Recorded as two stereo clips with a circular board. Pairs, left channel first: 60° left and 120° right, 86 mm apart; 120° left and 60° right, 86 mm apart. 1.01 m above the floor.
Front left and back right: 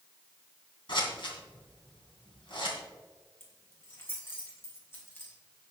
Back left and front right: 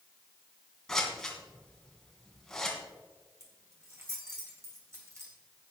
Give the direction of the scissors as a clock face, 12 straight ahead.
11 o'clock.